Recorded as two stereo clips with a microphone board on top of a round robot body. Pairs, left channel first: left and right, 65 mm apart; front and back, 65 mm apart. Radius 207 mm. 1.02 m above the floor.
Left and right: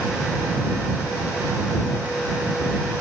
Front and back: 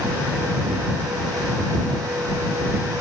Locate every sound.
Only background noise.